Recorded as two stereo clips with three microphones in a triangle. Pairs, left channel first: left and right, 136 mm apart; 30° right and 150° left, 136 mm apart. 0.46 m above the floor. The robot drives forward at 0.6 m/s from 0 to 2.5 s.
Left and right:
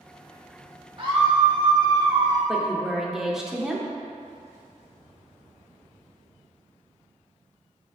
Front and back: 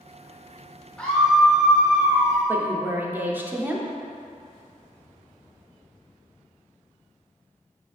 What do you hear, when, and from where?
1.0 s a scream: 110° right, 1.4 m; by 2.4 s 140° right, 1.8 m
2.5 s a woman speaking: 170° right, 0.7 m